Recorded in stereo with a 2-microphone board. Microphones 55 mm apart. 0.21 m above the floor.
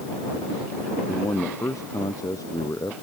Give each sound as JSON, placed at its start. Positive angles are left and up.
{"t": 1.1, "sound": "a man speaking", "side_deg": 80}